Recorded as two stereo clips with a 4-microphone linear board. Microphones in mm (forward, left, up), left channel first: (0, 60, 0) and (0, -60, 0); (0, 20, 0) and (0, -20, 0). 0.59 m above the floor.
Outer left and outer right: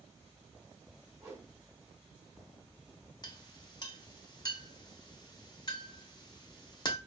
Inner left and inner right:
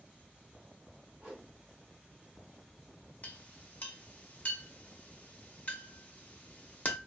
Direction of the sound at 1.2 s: 20° right (ahead or behind).